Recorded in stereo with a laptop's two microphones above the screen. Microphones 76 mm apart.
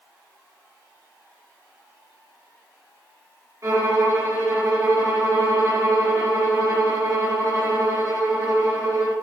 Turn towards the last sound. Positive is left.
turn(degrees=-50)  # may be behind; listen again after turning